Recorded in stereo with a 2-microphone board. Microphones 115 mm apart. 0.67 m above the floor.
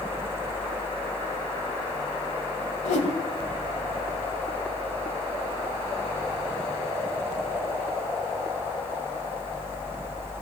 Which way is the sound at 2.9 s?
90° left.